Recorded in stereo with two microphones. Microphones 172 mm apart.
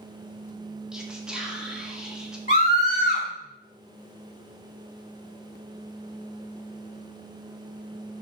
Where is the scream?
55° left (ahead or behind), 2 m.